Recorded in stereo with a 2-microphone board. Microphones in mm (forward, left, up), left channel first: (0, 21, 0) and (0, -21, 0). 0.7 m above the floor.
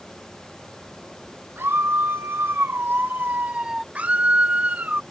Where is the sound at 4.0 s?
35° right (ahead or behind).